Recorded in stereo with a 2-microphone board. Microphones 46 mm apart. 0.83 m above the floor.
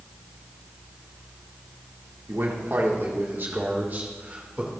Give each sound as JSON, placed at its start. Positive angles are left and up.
{"t": 2.3, "sound": "a man speaking", "side_deg": -65, "distance_m": 2.0}